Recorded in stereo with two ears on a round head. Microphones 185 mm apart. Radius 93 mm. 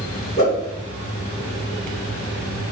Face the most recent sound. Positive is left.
turn(degrees=35)  # may be behind; listen again after turning